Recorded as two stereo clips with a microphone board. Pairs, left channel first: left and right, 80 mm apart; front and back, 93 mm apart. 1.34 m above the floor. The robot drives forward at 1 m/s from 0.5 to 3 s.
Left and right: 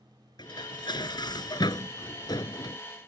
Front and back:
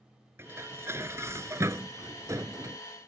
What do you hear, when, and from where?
0.4 s dishes clattering: 115° left; by 2.8 s 125° left